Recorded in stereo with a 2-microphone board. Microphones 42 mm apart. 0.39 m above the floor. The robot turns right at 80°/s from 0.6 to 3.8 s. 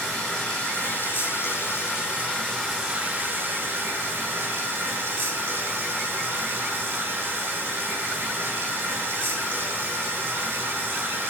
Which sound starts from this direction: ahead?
Running water, at 0.0 s.